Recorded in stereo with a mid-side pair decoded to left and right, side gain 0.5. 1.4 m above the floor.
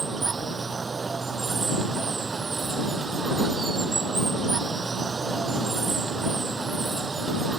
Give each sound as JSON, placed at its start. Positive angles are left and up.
{"t": 0.0, "sound": "running water", "azimuth_deg": -30}